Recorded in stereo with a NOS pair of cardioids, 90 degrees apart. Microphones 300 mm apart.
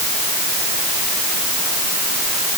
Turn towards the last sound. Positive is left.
No sound to turn to.